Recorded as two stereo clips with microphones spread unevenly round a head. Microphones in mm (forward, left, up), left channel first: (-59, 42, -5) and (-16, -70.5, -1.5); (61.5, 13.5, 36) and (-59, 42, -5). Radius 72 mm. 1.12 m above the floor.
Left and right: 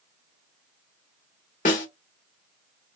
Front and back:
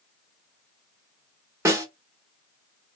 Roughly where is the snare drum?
Left.